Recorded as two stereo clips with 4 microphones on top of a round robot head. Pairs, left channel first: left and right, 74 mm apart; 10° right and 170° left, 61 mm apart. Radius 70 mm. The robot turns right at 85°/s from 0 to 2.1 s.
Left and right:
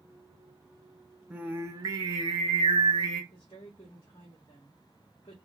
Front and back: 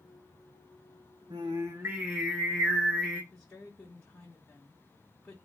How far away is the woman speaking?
About 1.3 m.